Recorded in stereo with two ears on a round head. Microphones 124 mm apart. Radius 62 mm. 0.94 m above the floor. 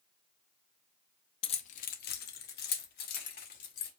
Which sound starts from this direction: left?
Keys jangling, at 1.4 s.